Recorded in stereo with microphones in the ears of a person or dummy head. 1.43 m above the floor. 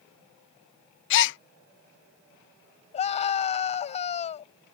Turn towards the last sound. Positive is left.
turn(degrees=30)  # may be behind; listen again after turning